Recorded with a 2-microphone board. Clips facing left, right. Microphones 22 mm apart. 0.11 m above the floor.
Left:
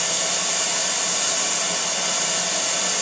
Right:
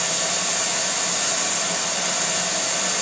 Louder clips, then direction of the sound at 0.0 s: Even; 30° left (ahead or behind).